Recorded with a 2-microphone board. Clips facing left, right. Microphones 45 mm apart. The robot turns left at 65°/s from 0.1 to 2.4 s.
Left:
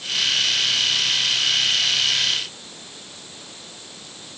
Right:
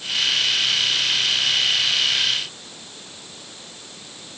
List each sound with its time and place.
Only background noise.